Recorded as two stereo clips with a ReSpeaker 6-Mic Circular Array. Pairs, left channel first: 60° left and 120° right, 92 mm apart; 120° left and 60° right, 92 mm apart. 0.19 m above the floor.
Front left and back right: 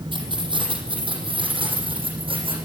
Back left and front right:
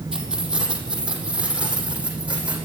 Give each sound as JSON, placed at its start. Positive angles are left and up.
{"t": 0.1, "sound": "keys jangling", "azimuth_deg": -140, "distance_m": 4.5}